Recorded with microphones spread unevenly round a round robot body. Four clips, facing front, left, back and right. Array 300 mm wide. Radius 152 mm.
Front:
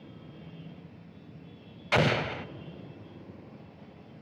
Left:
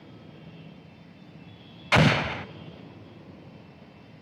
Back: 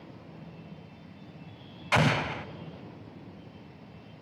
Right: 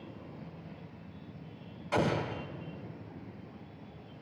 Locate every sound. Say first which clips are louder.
1.9 s an explosion: left 8 dB, even; 95° left, 0.6 m